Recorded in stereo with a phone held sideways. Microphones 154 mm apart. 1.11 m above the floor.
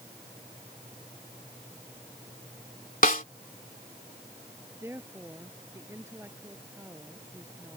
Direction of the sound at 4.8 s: 15° right (ahead or behind).